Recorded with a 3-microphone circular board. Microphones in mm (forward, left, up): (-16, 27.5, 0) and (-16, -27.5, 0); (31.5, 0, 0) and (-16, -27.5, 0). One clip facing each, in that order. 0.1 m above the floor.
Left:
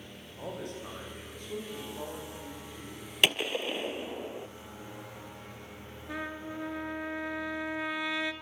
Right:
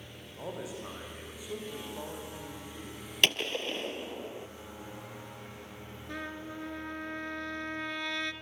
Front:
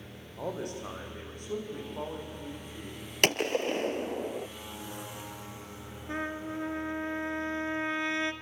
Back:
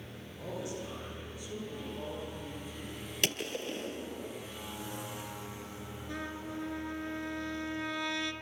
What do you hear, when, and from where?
0.4 s a man speaking: 5° right, 6.5 m; by 3.0 s 10° right, 9.5 m
3.2 s a gunshot: 10° left, 0.5 m
6.1 s a trumpet: 20° left, 1.0 m